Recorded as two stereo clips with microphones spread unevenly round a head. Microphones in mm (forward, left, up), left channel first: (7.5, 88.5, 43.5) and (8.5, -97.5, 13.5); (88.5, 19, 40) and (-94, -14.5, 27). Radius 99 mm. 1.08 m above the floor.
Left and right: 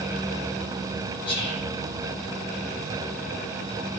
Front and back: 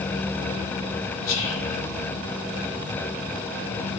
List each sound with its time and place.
1.2 s whispering: 25° left, 4 m